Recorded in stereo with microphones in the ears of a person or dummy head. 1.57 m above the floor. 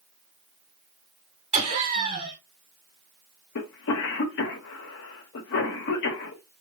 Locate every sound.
1.5 s laughter: 35° right (ahead or behind), 2 m
3.5 s a cough: 65° left (ahead or behind), 1.3 m